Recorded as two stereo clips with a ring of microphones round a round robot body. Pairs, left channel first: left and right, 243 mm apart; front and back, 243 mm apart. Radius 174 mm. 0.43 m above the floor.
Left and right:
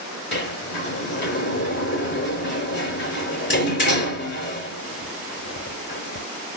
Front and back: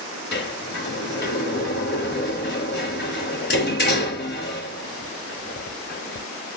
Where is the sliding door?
45° left, 3.5 m.